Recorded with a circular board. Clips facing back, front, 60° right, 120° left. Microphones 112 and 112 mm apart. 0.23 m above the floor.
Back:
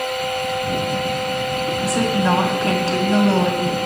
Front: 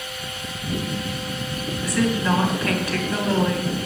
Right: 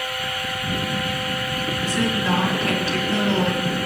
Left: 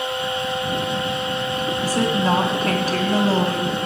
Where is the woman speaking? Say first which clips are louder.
Back 2 dB, left 3 dB; 140° left, 1.9 m.